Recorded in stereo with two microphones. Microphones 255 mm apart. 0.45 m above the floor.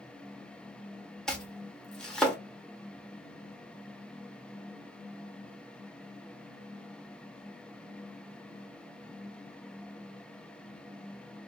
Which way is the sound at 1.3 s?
5° left (ahead or behind).